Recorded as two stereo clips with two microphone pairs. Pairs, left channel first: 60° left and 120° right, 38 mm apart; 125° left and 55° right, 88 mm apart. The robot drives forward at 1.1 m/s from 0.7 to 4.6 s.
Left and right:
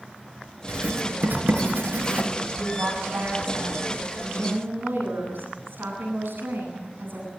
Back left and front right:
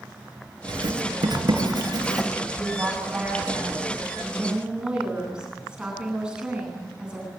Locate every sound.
0.7 s writing: 80° right, 7.5 m; by 2.3 s 95° right, 7.5 m
2.6 s a woman speaking: 125° right, 8.5 m; by 7.3 s 135° right, 10 m